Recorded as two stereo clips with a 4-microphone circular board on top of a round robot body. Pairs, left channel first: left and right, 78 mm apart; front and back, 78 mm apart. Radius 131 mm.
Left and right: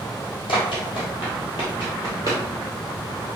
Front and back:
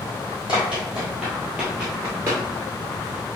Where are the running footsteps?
100° left, 2 m; by 2.4 s 140° left, 0.8 m.